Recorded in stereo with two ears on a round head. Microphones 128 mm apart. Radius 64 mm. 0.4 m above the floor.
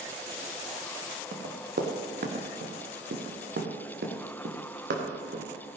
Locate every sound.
1.3 s running footsteps: 65° right (ahead or behind), 3 m; by 5.5 s 75° right (ahead or behind), 3.5 m